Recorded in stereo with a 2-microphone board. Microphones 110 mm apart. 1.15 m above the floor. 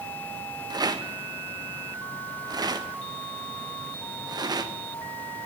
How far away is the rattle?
About 1.1 m.